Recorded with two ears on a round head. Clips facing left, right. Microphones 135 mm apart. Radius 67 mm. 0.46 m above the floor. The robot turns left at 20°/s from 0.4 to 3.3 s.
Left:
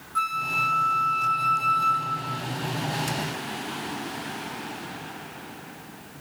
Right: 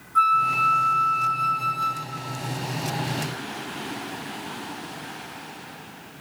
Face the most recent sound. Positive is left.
turn(degrees=-40)